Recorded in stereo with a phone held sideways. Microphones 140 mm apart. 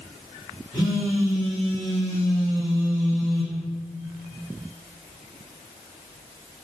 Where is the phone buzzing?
35° left (ahead or behind), 1.7 m.